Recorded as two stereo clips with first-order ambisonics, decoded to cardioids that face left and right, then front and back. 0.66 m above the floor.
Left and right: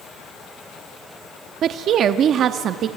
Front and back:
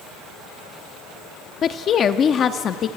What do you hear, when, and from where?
1.6 s a woman speaking: 50° right, 0.7 m